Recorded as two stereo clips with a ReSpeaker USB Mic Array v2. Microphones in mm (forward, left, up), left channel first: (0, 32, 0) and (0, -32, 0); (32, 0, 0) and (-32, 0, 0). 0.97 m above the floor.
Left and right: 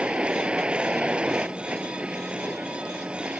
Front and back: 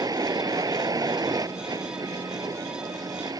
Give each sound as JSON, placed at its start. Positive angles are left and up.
{"t": 0.0, "sound": "a vehicle", "azimuth_deg": -165}